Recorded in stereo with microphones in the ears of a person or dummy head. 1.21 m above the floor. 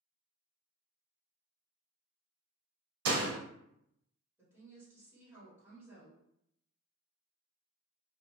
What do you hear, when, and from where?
3.0 s a door slam: 75° right (ahead or behind), 0.5 m
4.4 s a woman speaking: 10° right (ahead or behind), 1.5 m